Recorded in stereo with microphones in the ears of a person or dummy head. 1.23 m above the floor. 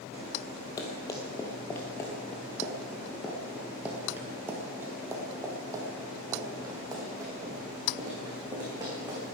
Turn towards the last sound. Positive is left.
turn(degrees=-20)  # may be behind; listen again after turning